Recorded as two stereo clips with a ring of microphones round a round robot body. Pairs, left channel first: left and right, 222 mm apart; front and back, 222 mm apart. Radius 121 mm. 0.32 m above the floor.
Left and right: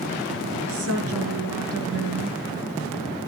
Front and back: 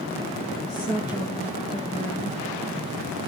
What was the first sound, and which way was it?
A woman speaking, 75° right.